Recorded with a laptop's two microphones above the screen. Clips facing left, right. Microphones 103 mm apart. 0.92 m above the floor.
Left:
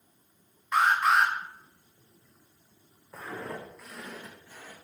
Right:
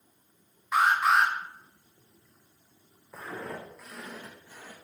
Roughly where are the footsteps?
Centre.